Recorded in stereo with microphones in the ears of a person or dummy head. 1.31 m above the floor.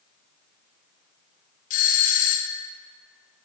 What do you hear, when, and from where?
1.7 s a doorbell: 40° left (ahead or behind), 0.6 m